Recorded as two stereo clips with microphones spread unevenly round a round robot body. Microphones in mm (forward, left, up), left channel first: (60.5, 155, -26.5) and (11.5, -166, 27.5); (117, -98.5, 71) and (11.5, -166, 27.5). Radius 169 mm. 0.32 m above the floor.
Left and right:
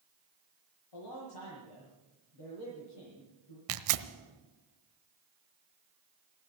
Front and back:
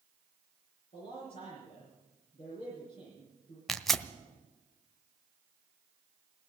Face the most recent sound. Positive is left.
turn(degrees=-70)